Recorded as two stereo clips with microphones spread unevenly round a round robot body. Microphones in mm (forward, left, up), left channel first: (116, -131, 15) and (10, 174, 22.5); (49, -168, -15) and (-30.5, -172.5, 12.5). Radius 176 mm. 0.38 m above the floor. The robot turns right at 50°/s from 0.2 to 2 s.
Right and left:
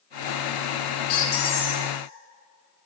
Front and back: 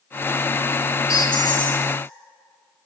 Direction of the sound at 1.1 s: 45° right.